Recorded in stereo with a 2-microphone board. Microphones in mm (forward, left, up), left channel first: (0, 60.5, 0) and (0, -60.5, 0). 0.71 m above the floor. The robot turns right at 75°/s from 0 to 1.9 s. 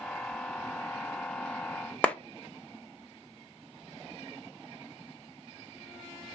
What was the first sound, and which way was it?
A clap, 10° left (ahead or behind).